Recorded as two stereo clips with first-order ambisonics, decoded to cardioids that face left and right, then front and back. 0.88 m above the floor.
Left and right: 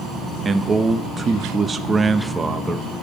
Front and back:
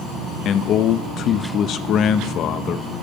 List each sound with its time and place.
0.5 s a man speaking: 25° right, 0.5 m